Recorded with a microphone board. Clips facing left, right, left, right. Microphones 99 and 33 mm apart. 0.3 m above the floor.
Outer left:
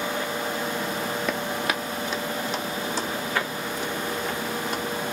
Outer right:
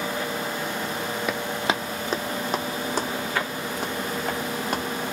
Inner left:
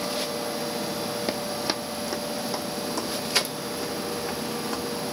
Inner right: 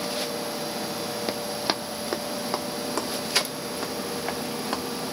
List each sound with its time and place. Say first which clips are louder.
1.3 s running footsteps: outer right 1 dB, even; 5° right (ahead or behind), 0.5 m; by 4.8 s 65° right (ahead or behind), 2 m